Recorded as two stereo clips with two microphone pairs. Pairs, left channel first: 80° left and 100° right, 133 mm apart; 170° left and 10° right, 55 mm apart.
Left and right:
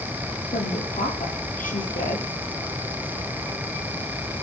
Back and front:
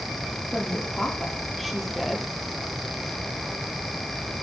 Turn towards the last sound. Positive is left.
turn(degrees=80)